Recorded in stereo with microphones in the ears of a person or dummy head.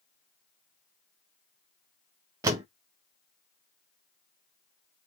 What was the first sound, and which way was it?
A door slam, 20° right (ahead or behind).